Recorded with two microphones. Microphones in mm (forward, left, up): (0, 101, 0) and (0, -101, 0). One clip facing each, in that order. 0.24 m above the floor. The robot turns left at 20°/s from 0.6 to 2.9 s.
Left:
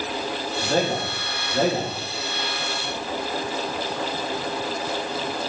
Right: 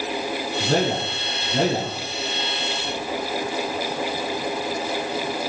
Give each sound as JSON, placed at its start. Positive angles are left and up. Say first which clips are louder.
{"t": 0.6, "sound": "a man speaking", "louder": "right 1 dB", "side_deg": -60, "distance_m": 5.5}